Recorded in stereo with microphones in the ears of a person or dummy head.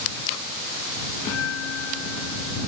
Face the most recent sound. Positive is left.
turn(degrees=80)